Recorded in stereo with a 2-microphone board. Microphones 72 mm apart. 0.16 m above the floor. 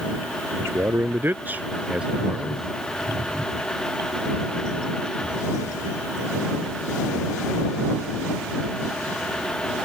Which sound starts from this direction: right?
A man speaking, at 0.6 s.